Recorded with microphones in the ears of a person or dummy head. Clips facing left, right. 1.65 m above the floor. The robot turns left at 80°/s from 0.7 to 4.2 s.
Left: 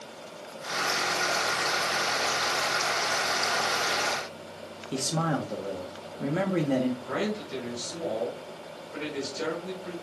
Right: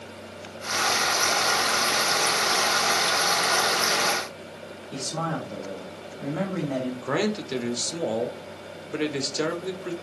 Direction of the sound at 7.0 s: 75° right (ahead or behind).